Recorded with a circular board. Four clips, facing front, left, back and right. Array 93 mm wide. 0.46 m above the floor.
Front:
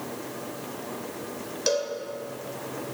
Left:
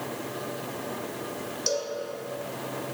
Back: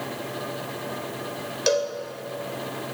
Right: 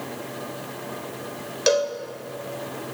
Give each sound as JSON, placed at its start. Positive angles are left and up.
{"t": 1.7, "sound": "a cowbell", "azimuth_deg": -110, "distance_m": 1.0}